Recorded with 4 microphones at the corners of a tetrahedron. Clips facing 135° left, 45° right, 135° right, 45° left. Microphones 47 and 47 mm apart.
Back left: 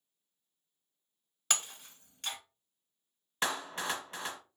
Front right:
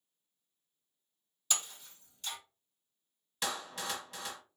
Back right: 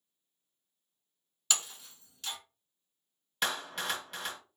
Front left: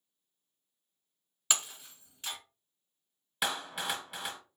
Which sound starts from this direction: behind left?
A clap, at 3.4 s.